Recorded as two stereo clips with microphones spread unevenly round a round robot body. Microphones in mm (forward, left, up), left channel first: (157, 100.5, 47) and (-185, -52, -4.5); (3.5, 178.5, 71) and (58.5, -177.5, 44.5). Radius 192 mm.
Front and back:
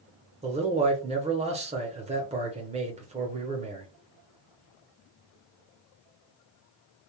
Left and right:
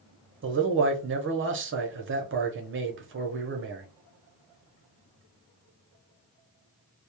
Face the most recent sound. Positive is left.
turn(degrees=-105)